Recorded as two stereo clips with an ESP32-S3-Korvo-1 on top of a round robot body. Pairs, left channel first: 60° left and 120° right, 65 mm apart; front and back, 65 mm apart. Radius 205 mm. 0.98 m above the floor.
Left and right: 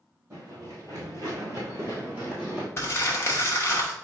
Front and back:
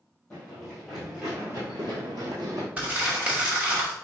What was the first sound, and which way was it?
Running footsteps, 70° right.